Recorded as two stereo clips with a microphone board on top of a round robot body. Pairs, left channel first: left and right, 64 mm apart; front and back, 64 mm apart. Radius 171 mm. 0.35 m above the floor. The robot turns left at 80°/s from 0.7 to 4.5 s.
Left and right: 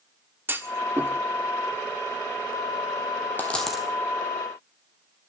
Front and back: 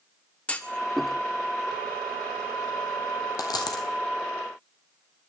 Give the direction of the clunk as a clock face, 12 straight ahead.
2 o'clock.